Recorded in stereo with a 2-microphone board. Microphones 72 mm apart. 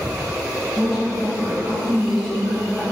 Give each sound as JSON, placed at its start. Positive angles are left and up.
{"t": 0.8, "sound": "a woman speaking", "side_deg": 0, "distance_m": 1.5}